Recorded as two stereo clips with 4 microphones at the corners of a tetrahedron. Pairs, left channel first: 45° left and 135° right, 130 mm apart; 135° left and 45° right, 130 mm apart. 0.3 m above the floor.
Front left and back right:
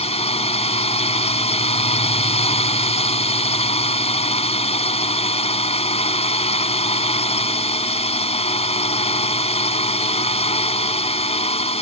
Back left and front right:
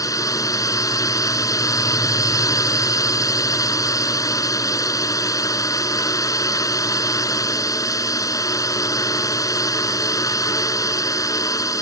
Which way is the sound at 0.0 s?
75° left.